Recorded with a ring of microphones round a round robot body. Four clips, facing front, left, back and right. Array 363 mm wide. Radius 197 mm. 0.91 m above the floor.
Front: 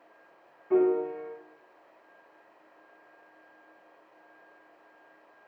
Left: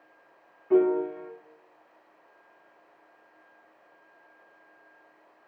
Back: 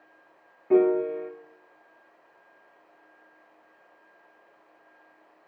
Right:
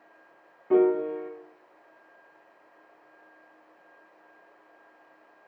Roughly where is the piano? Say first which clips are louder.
Right 1 dB, back 3 dB; behind right.